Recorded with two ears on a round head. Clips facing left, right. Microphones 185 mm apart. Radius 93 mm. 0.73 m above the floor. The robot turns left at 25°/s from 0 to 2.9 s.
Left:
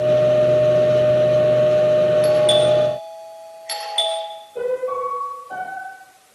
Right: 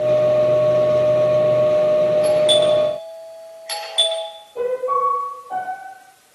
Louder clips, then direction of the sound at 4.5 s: Right 1 dB; 15° left (ahead or behind).